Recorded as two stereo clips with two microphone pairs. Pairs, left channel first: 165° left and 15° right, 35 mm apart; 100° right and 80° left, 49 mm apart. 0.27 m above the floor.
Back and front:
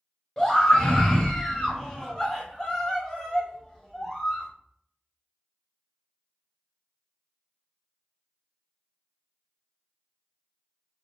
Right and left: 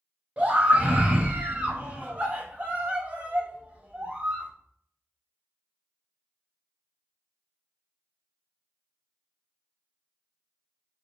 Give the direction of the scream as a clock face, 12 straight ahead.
8 o'clock.